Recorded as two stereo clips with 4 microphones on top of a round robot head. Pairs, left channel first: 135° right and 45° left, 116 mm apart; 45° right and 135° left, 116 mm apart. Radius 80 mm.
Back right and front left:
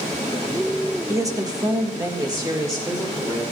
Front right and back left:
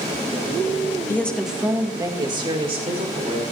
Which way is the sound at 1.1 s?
10° left.